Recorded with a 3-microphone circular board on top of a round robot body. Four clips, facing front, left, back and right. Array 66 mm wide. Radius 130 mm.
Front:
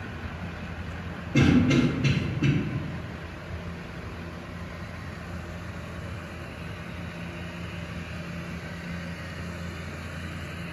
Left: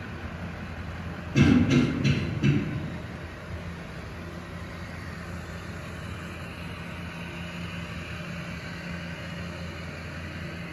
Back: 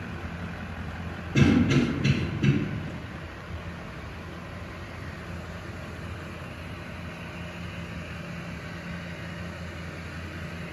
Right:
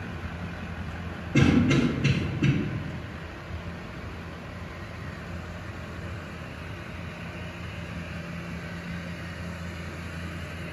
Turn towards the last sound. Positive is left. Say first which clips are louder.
# left 1 dB, front 1 dB
turn(degrees=-45)